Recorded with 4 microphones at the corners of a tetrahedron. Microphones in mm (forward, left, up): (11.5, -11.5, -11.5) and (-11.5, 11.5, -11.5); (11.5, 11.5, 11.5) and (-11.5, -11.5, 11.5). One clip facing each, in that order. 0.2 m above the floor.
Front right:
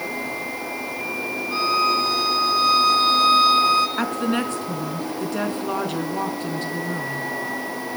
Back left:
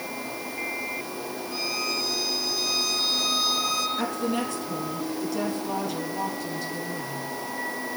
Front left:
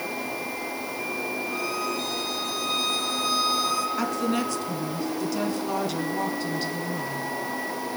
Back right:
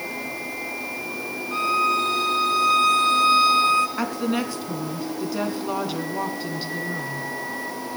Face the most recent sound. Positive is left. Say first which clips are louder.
# front right 4 dB, back right 1 dB
turn(degrees=-60)